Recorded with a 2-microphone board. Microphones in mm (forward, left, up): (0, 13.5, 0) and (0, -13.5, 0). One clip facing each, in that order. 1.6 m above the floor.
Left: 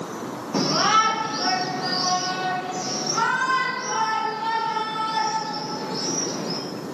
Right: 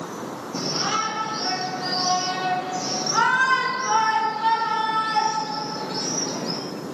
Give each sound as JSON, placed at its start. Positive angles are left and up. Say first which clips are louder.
{"t": 0.5, "sound": "a shout", "louder": "left 6 dB", "side_deg": 50, "distance_m": 0.9}